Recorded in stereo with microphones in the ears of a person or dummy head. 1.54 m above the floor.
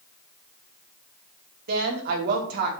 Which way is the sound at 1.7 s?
50° right (ahead or behind).